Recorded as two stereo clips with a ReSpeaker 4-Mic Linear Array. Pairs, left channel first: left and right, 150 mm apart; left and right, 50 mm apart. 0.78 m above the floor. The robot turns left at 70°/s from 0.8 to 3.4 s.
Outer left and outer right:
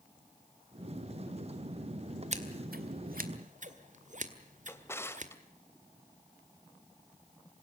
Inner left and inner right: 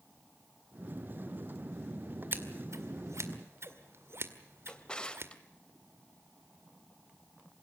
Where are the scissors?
45° right (ahead or behind), 1.8 m; by 5.3 s 55° right (ahead or behind), 1.8 m.